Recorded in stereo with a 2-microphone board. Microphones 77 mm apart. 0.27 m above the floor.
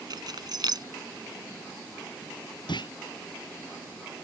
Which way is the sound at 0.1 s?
65° right (ahead or behind).